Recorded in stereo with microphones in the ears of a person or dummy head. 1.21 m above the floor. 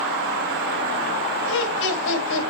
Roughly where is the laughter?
Left.